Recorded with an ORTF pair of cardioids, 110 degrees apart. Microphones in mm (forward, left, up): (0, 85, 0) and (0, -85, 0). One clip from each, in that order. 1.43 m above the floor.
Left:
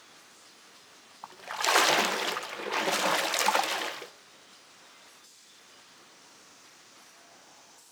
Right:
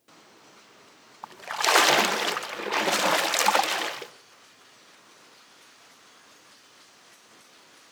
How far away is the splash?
About 1.3 m.